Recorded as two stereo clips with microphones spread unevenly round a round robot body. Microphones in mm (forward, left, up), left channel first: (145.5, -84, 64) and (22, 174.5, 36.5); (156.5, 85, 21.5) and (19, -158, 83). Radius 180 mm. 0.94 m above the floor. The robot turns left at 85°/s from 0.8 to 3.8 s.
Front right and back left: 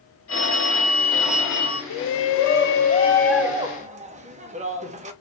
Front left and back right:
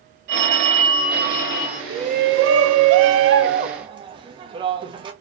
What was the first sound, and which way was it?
A phone ringing, 120° right.